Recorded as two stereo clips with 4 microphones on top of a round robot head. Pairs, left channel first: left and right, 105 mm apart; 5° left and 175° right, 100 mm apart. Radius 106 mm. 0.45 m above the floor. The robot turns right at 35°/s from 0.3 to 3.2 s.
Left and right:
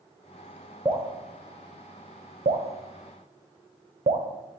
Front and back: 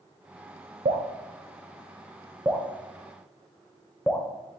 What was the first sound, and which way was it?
Dripping, 160° right.